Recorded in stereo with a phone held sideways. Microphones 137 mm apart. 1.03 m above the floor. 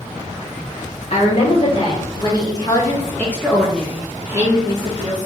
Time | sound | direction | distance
1.1 | a woman speaking | 50° left (ahead or behind) | 1.8 m